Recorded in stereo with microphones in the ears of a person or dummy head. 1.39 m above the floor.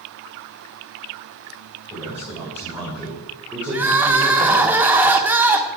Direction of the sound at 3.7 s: 10° right (ahead or behind).